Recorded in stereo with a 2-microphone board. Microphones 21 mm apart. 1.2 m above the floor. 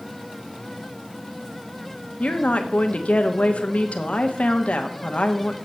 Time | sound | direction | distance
2.2 | a woman speaking | 70° left (ahead or behind) | 1.1 m